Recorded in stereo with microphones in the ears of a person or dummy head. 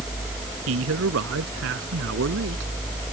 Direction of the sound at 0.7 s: 70° right (ahead or behind).